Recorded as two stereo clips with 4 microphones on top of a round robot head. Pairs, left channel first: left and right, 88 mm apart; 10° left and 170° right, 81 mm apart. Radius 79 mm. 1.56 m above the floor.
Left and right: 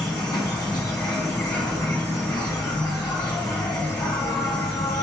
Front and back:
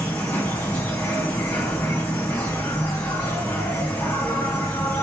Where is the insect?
60° left, 1.8 m.